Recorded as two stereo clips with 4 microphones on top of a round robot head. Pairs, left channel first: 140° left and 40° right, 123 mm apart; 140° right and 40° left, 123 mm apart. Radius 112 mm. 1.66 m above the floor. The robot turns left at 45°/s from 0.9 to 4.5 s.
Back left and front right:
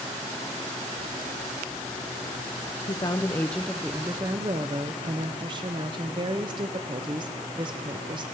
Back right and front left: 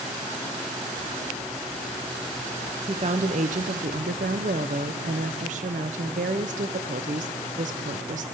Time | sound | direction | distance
2.9 | a woman speaking | 90° left | 0.6 m